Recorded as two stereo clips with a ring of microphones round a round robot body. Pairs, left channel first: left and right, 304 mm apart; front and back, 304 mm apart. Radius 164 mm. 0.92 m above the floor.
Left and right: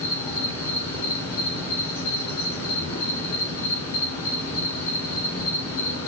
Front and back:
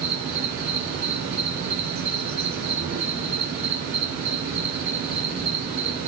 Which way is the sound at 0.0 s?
145° left.